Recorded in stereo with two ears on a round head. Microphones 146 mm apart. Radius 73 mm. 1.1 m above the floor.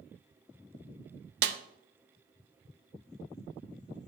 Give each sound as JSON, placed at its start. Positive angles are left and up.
{"t": 1.4, "sound": "a snare drum", "side_deg": -75, "distance_m": 0.8}